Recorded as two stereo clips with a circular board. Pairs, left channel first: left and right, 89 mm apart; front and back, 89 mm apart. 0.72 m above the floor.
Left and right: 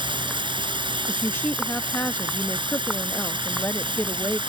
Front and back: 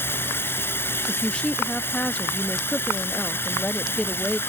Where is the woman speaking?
65° left.